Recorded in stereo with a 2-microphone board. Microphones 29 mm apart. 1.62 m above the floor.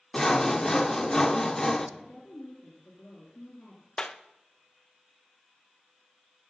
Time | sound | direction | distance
0.1 | sawing | 20° left (ahead or behind) | 0.7 m
2.0 | a woman speaking | 75° left (ahead or behind) | 3 m
4.0 | a clap | 30° left (ahead or behind) | 0.6 m